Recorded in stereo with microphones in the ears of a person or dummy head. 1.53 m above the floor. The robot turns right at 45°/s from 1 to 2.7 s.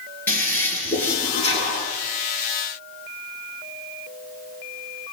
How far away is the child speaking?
No child speaking in this recording.